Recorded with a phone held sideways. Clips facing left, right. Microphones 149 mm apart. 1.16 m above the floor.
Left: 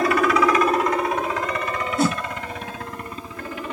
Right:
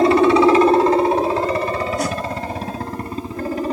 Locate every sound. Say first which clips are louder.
0.0 s a helicopter: right 7 dB; 30° right (ahead or behind); by 3.7 s 40° right (ahead or behind)
2.0 s a whoosh: left 1 dB; 30° left (ahead or behind)